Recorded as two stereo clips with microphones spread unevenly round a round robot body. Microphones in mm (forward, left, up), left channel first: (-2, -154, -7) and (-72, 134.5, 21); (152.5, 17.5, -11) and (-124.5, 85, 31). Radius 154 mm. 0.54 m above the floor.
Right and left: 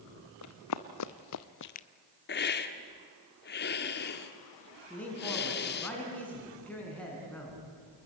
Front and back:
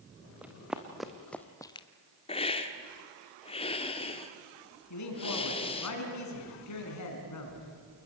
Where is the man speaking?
10° left, 5 m.